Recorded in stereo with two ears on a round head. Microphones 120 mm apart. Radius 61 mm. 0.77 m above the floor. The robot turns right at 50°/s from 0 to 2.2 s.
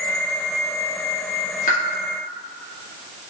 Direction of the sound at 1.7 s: 60° left (ahead or behind).